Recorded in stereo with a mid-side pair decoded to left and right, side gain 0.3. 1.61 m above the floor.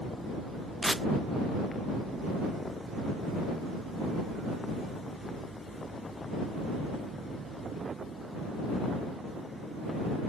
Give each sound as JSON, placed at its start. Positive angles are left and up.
{"t": 0.8, "sound": "tearing paper", "azimuth_deg": -10}